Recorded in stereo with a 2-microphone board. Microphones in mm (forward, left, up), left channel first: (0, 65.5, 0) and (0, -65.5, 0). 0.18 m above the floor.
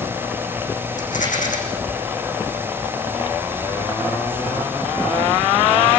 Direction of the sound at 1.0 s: 85° left.